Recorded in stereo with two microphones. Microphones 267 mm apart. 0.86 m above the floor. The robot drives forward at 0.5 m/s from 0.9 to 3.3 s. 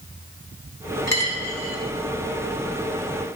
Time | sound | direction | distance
1.1 | a dropped coin | 75° right (ahead or behind) | 1.3 m